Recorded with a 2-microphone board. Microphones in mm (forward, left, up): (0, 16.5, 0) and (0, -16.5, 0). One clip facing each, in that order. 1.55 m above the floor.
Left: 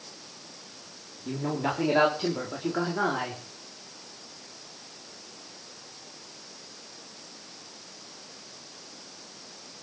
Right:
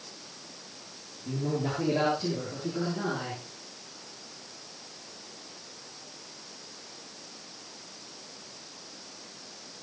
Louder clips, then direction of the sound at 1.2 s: Left 2 dB; 45° left (ahead or behind).